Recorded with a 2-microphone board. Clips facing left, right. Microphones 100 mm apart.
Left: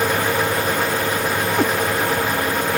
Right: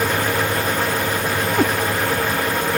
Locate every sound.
1.6 s a cat meowing: 5° right (ahead or behind)